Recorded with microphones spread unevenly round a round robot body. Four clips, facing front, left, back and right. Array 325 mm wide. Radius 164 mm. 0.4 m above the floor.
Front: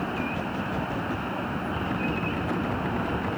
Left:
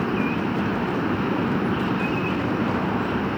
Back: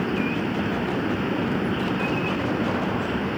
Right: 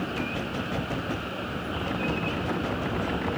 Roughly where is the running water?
Behind left.